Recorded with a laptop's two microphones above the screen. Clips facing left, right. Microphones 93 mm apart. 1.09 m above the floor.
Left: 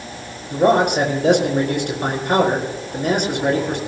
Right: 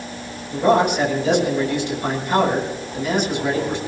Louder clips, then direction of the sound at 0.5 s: Left 1 dB; 60° left (ahead or behind).